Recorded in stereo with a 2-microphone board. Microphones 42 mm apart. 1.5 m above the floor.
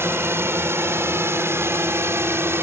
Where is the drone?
70° right (ahead or behind).